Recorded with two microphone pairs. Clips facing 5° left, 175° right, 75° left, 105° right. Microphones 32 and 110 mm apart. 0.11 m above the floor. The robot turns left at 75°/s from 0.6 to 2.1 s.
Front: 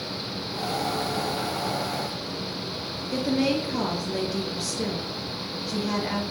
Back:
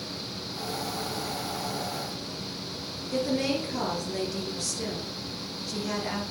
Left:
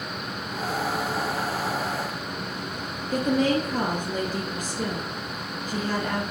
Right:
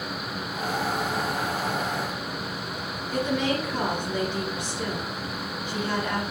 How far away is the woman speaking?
About 2 m.